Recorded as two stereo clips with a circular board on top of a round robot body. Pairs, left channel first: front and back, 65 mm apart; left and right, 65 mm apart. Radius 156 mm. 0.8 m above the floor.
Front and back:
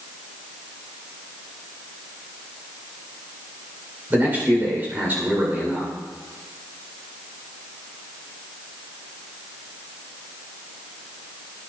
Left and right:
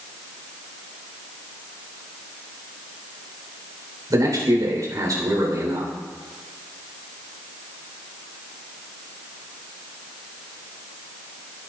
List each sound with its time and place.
4.1 s a man speaking: 120° right, 4 m